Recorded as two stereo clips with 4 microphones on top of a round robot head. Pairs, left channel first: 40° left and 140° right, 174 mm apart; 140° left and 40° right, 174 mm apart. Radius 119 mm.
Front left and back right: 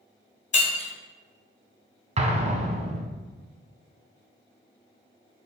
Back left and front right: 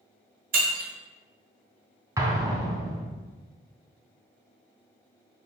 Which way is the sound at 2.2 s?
105° right.